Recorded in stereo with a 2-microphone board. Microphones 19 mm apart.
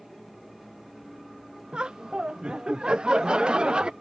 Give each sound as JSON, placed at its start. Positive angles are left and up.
{"t": 1.7, "sound": "laughter", "side_deg": -60}